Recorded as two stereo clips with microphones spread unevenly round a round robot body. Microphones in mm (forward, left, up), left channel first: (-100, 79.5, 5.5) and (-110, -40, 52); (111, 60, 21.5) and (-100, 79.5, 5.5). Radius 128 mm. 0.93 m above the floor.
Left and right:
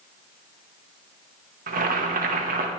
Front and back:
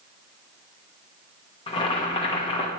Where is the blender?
I don't hear a blender.